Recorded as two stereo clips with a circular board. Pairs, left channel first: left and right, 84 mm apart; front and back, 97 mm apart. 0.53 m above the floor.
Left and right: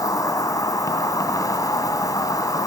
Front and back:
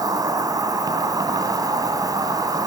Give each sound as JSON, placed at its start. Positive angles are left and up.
{"t": 0.0, "sound": "an insect", "azimuth_deg": 135, "distance_m": 1.9}